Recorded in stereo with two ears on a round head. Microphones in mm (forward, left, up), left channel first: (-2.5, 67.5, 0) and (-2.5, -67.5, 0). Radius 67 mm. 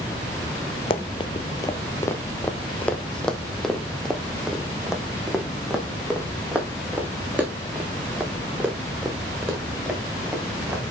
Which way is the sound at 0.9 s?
40° left (ahead or behind).